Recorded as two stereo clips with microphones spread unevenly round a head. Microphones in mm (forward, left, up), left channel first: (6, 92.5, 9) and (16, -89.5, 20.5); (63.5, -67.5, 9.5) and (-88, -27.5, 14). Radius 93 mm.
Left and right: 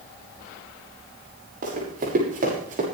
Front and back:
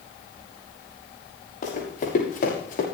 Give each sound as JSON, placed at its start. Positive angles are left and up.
{"t": 1.6, "sound": "running footsteps", "azimuth_deg": -45, "distance_m": 7.0}